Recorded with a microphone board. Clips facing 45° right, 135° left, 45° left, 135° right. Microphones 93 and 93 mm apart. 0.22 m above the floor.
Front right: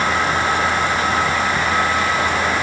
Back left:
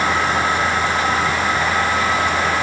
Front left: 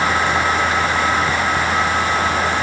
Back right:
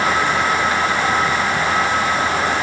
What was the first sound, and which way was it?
Only background noise.